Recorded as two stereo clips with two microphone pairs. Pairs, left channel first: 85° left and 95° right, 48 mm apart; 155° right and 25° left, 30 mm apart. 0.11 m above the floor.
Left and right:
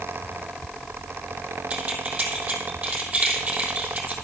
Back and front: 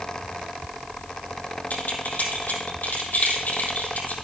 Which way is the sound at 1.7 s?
155° right.